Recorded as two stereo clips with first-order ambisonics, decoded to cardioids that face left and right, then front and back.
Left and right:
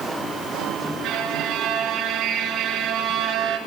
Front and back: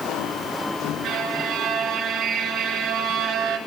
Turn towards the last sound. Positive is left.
turn(degrees=-140)